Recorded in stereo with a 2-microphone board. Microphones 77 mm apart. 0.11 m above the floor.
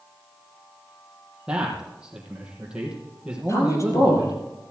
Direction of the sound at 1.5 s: 10° right (ahead or behind).